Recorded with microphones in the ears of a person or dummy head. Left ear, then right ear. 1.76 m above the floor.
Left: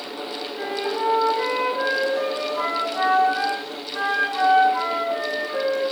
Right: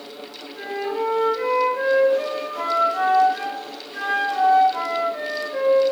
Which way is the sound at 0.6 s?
5° right (ahead or behind).